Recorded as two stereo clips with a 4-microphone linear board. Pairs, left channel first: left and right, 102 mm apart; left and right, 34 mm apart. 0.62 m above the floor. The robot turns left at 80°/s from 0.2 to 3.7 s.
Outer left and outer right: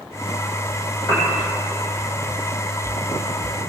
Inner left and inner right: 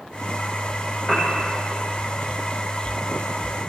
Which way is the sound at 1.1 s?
30° left (ahead or behind).